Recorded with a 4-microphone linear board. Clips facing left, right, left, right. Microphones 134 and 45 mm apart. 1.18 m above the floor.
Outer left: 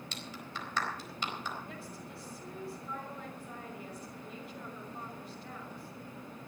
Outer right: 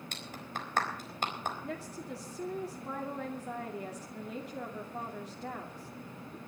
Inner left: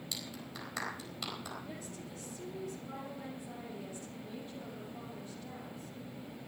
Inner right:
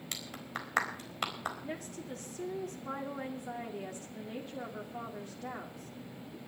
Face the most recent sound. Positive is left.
turn(degrees=-80)